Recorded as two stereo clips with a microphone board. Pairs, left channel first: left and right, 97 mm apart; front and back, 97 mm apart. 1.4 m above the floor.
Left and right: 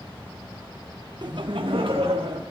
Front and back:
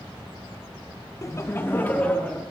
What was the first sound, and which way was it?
Laughter, 50° right.